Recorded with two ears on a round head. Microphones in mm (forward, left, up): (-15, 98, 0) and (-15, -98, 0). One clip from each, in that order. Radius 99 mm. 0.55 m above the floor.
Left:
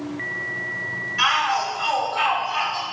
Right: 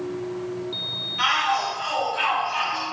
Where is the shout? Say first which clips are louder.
Left 2 dB; 35° left (ahead or behind), 1.8 m; by 2.8 s 20° left (ahead or behind), 3.5 m.